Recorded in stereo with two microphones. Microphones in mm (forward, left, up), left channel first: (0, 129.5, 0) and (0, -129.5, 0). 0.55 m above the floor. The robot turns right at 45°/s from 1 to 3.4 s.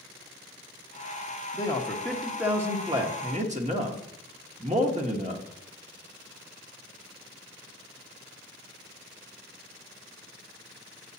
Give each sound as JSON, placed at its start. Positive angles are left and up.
{"t": 1.5, "sound": "a man speaking", "azimuth_deg": 150, "distance_m": 1.0}